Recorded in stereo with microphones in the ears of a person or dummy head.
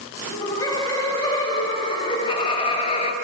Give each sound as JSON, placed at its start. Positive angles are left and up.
{"t": 0.2, "sound": "laughter", "side_deg": 20, "distance_m": 6.0}